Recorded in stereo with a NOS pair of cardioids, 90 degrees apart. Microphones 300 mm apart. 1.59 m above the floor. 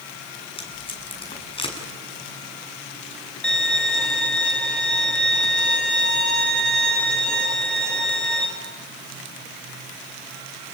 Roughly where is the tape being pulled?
Ahead.